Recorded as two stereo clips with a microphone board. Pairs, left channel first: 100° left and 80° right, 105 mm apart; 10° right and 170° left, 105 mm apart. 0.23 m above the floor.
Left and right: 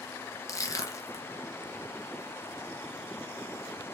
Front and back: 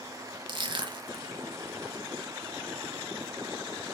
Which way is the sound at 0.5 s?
145° left.